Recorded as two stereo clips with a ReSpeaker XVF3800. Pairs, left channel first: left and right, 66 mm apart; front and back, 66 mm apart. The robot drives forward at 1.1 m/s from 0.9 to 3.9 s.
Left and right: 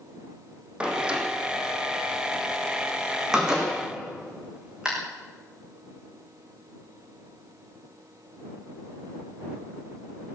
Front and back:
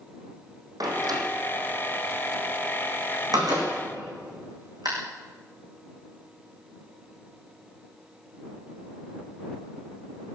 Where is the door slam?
165° right, 5 m; by 4.9 s 170° right, 8 m.